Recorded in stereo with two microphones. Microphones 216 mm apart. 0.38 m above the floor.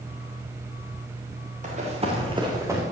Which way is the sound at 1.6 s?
35° right (ahead or behind).